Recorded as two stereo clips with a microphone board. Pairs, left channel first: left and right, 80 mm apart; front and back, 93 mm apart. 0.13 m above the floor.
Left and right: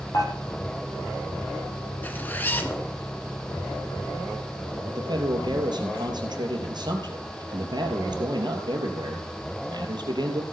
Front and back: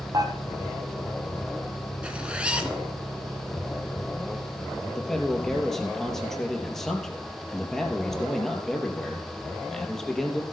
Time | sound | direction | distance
0.1 | dishes clattering | 135° left | 2.5 m
2.0 | a zipper | 120° left | 1.6 m
4.9 | a man speaking | 85° right | 2.5 m